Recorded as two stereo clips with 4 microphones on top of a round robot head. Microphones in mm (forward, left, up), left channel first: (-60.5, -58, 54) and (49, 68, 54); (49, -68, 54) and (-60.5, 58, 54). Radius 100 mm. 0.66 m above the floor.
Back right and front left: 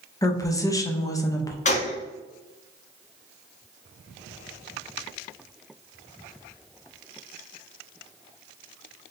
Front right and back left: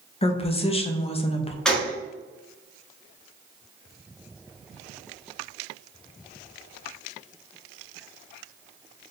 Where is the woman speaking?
75° right, 0.6 m.